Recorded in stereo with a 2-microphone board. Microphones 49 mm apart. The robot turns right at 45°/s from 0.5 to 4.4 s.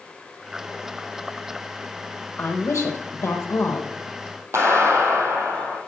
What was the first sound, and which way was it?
A woman speaking, 50° left.